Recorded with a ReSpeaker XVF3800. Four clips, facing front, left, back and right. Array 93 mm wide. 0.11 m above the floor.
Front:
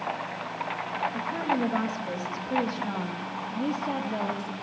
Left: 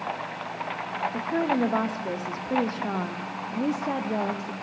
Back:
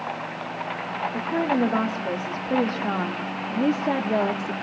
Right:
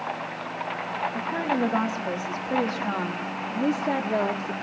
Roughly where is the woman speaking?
Behind left.